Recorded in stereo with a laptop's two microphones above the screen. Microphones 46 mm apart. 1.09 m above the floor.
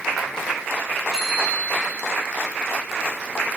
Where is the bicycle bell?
10° right (ahead or behind), 8 m.